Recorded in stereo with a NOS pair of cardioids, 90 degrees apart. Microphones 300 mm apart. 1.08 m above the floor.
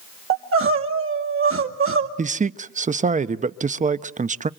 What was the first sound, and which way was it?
Crying, 45° right.